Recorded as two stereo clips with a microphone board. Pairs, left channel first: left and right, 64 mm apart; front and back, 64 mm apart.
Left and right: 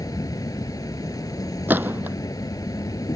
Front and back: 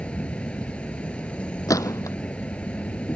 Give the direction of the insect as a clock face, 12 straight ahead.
10 o'clock.